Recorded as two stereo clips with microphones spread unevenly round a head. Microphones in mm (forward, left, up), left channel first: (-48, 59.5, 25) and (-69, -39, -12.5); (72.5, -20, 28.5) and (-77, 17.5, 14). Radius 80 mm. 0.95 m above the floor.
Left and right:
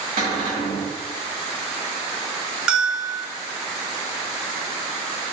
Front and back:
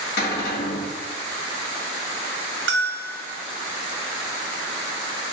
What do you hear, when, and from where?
0.2 s a cupboard door: 40° right, 1.6 m
2.7 s a bell: 160° left, 0.7 m